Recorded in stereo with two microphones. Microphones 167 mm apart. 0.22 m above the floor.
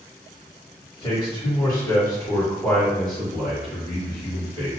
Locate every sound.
1.0 s a man speaking: 35° left (ahead or behind), 2.0 m; by 4.7 s 25° right (ahead or behind), 1.8 m